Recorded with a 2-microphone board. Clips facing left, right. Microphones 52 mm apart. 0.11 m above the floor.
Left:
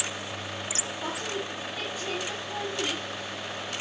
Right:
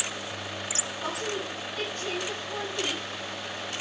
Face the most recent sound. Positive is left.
turn(degrees=5)  # may be behind; listen again after turning